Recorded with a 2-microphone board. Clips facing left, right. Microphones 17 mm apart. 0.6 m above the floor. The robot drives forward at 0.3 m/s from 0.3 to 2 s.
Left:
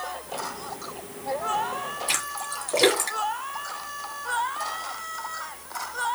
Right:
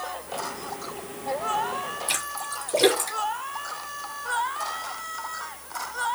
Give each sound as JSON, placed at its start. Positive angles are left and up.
{"t": 2.1, "sound": "a splash", "side_deg": 30, "distance_m": 1.9}